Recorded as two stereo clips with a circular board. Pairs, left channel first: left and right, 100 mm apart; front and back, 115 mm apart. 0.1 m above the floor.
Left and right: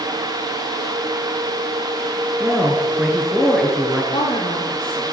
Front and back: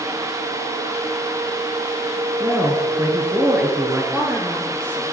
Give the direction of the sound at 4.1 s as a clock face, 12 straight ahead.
8 o'clock.